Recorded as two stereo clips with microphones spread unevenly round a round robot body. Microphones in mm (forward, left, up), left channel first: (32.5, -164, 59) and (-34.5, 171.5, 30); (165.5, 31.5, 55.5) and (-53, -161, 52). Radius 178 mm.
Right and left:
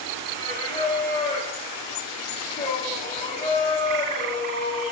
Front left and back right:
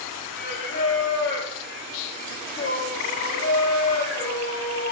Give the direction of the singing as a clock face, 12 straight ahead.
12 o'clock.